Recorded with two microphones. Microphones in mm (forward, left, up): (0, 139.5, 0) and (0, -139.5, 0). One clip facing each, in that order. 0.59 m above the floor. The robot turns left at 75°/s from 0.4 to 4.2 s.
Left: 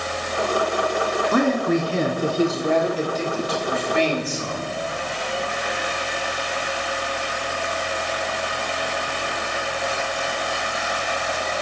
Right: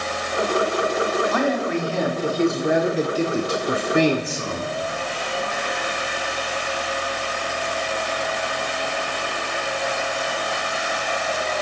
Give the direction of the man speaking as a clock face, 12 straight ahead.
9 o'clock.